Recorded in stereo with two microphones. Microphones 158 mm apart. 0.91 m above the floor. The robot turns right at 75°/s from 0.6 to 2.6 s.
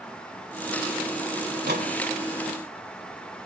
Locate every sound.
1.5 s a microwave: 75° right (ahead or behind), 2.5 m